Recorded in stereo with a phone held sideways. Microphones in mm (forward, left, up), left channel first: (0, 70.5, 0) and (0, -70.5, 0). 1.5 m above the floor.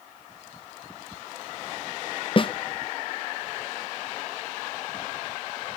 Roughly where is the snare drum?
Left.